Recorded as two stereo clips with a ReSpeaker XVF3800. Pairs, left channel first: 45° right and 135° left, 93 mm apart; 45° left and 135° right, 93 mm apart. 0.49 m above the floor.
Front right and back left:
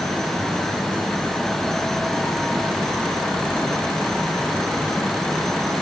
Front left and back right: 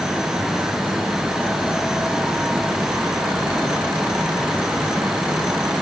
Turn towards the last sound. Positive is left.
No sound to turn to.